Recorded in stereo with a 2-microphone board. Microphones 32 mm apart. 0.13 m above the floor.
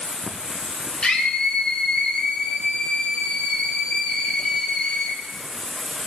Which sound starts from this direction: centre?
Running water, at 0.0 s.